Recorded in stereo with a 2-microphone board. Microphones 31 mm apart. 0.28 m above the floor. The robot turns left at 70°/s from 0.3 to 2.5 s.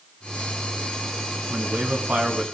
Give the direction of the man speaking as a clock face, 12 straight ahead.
3 o'clock.